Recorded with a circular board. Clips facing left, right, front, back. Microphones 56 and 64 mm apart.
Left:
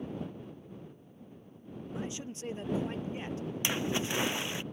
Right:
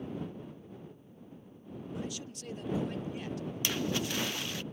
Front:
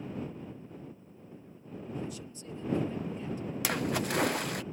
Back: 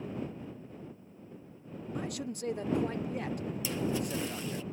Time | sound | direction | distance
1.9 | a man speaking | 150° left | ?
3.6 | a splash | 20° left | ?